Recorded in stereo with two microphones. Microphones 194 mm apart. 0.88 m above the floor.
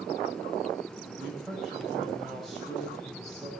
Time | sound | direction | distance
1.2 | a man speaking | centre (ahead or behind) | 4 m